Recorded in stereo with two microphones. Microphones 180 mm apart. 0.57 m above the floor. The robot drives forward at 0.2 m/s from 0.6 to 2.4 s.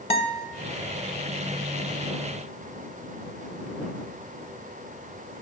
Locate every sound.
0.1 s a guitar: 35° left (ahead or behind), 0.5 m